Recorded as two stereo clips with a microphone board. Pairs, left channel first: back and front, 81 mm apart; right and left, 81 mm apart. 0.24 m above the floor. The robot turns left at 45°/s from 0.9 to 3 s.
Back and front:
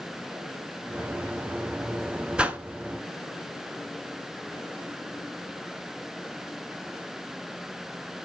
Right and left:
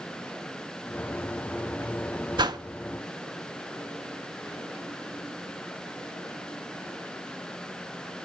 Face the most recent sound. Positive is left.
turn(degrees=50)